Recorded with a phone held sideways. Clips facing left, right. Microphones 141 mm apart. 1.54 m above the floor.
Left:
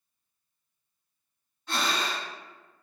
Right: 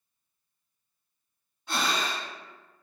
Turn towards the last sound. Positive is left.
turn(degrees=-10)  # may be behind; listen again after turning